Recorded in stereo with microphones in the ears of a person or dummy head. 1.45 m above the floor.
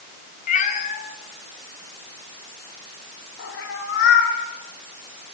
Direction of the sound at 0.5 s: 45° left (ahead or behind).